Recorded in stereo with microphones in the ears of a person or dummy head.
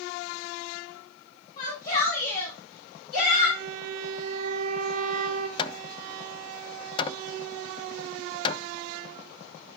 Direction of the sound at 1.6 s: 50° left (ahead or behind).